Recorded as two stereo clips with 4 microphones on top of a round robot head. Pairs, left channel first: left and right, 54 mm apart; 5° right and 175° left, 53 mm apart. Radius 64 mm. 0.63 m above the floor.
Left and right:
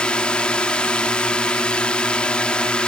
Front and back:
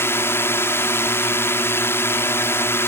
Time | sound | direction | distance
0.0 | a drone | 20° left | ?